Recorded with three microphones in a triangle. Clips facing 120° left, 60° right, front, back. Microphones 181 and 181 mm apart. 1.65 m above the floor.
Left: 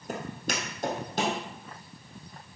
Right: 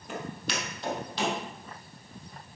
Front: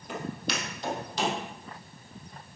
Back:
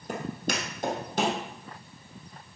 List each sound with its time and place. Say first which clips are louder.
0.1 s footsteps: left 1 dB, back 2 dB; 150° left, 2.5 m; by 1.4 s 155° left, 3.5 m